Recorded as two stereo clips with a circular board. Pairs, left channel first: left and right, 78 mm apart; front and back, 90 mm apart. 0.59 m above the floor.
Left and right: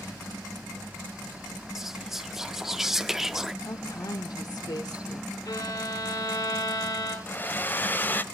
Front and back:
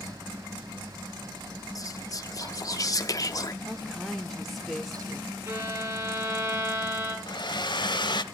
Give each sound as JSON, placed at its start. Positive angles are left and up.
{"t": 1.8, "sound": "whispering", "azimuth_deg": -5, "distance_m": 0.9}
{"t": 3.6, "sound": "a woman speaking", "azimuth_deg": 85, "distance_m": 1.2}
{"t": 5.5, "sound": "a violin", "azimuth_deg": 115, "distance_m": 5.5}
{"t": 7.3, "sound": "a hair dryer", "azimuth_deg": 25, "distance_m": 0.7}